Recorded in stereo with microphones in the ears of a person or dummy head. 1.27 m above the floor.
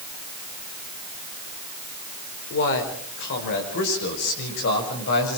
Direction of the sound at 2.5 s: 65° left (ahead or behind).